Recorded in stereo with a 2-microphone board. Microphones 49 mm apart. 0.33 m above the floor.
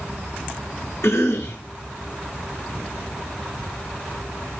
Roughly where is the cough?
Left.